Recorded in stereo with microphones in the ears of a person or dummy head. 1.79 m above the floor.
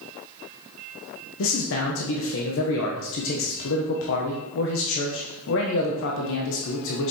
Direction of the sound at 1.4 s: 70° left (ahead or behind).